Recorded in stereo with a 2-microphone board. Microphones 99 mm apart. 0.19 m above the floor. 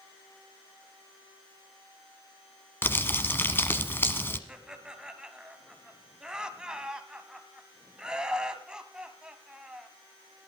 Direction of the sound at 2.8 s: 20° left (ahead or behind).